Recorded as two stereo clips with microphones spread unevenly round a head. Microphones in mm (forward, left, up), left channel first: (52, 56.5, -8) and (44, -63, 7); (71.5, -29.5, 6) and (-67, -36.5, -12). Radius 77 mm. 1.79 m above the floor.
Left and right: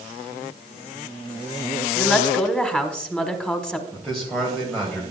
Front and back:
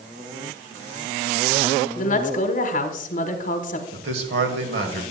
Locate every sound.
1.9 s a woman speaking: straight ahead, 1.3 m
3.9 s a man speaking: 175° left, 2 m